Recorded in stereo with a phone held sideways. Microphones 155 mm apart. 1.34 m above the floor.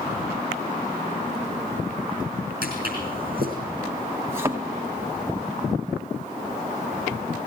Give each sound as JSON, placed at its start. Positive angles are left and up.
{"t": 2.6, "sound": "footsteps", "side_deg": -70, "distance_m": 5.5}
{"t": 4.3, "sound": "a thud", "side_deg": -15, "distance_m": 1.5}